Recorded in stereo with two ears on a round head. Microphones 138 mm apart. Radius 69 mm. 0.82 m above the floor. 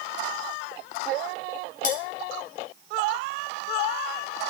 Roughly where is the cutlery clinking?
Left.